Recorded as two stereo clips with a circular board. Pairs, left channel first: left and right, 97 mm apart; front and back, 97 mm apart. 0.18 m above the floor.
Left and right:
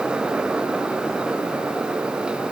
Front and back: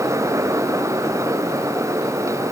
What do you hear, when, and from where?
Only background noise.